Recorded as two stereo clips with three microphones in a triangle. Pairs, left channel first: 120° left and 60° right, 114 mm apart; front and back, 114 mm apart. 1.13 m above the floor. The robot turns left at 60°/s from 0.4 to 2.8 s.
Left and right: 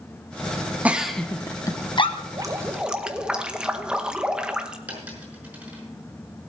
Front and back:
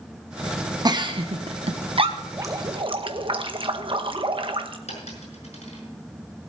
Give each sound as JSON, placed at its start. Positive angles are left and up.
{"t": 0.8, "sound": "a giggle", "azimuth_deg": -135, "distance_m": 0.9}
{"t": 2.3, "sound": "dripping", "azimuth_deg": -115, "distance_m": 0.9}
{"t": 4.9, "sound": "a dropped coin", "azimuth_deg": 20, "distance_m": 5.5}